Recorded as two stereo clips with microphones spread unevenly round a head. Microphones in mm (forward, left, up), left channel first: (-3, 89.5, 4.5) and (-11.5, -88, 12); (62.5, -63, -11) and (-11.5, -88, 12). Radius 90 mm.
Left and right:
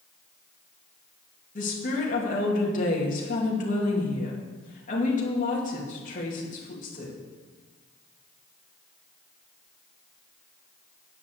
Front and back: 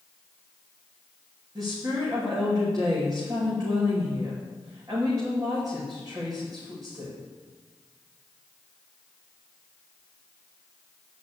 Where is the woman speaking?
135° left, 2.5 m.